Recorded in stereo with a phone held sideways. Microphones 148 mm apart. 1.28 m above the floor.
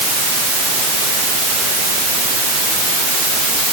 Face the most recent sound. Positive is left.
No sound to turn to.